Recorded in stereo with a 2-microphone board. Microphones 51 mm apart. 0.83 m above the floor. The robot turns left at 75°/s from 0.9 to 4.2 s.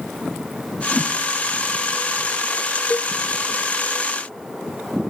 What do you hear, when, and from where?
0.9 s a whoosh: 15° left (ahead or behind), 1.1 m; by 1.1 s 30° left (ahead or behind), 1.1 m
2.9 s a cowbell: 40° left (ahead or behind), 0.7 m; by 3.1 s 50° left (ahead or behind), 0.7 m